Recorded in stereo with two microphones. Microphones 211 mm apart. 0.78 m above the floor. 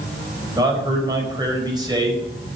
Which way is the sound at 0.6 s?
20° right (ahead or behind).